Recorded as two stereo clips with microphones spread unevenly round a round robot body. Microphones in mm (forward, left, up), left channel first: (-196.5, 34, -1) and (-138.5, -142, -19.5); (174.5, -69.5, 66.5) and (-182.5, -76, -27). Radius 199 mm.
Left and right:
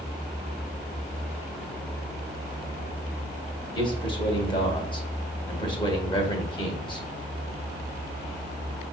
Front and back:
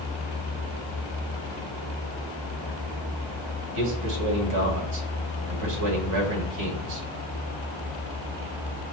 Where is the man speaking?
175° left, 1.7 m.